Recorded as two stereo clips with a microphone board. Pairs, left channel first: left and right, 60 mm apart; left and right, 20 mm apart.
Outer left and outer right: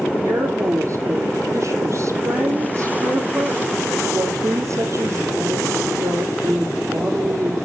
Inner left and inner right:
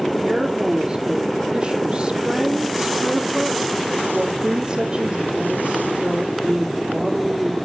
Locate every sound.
0.2 s a woman speaking: 55° right (ahead or behind), 3.5 m